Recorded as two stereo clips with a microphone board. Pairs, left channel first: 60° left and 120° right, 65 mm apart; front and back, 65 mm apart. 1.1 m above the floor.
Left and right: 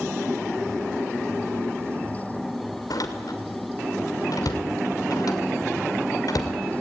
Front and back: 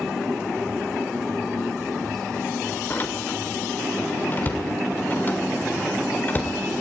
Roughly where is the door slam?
Ahead left.